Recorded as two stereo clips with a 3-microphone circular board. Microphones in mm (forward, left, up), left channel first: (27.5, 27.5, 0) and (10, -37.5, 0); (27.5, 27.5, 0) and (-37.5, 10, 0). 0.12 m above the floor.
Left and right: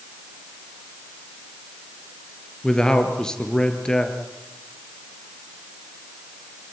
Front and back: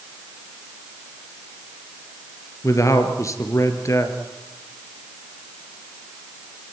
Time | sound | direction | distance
2.6 | a man speaking | straight ahead | 2.5 m